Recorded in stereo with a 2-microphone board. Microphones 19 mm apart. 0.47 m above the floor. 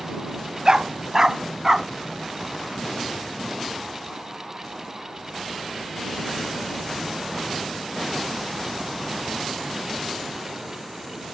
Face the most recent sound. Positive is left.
turn(degrees=-20)  # may be behind; listen again after turning